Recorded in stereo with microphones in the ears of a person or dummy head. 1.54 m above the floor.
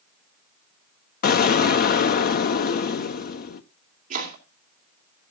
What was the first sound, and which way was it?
An explosion, 50° left (ahead or behind).